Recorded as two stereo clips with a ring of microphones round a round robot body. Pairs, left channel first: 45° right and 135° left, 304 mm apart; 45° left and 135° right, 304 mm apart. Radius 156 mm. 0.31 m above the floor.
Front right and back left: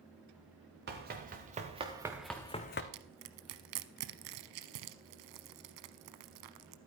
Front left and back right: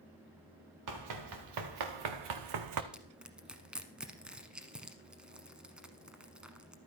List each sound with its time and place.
0.9 s running footsteps: 165° right, 3 m; by 2.8 s 100° right, 1.1 m
2.9 s crushing: 140° left, 0.9 m